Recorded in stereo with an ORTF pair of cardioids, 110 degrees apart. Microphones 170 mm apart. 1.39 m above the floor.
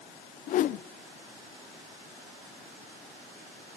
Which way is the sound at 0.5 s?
50° left.